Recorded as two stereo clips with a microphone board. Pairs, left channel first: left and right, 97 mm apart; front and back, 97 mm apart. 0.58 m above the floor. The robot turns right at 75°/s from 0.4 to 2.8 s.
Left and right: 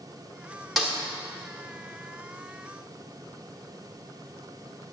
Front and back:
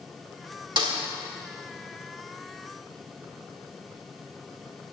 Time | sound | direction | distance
0.8 | a snare drum | 175° right | 1.4 m